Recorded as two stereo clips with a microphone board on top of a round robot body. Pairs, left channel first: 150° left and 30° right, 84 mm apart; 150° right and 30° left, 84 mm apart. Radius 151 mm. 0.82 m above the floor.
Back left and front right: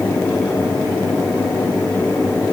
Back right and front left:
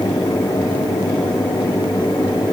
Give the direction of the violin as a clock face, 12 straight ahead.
No violin in this recording.